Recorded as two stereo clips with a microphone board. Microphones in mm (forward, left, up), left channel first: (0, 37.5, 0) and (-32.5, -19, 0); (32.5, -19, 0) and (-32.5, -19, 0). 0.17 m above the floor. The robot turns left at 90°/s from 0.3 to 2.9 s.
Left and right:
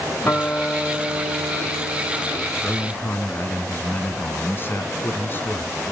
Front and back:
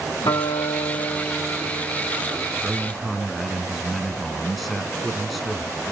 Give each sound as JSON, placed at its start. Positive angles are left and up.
{"t": 0.2, "sound": "a guitar", "azimuth_deg": -10, "distance_m": 8.5}
{"t": 2.6, "sound": "a man speaking", "azimuth_deg": 110, "distance_m": 1.8}